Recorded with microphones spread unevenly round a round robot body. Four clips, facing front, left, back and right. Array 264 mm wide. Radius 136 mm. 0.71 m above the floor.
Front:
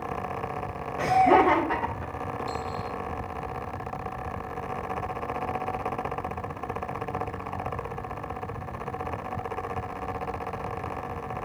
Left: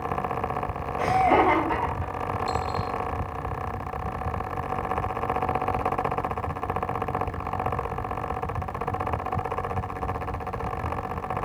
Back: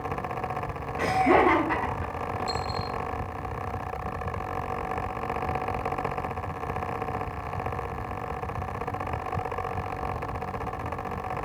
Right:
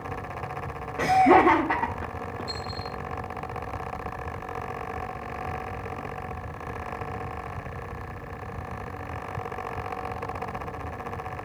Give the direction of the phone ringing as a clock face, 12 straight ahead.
I don't hear a phone ringing.